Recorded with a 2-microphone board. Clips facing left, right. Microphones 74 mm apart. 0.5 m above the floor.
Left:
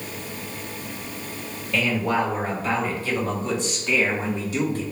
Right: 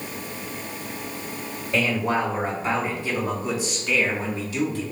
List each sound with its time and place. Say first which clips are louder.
1.7 s a man speaking: even; 30° right (ahead or behind), 1.6 m; by 4.8 s 35° left (ahead or behind), 0.8 m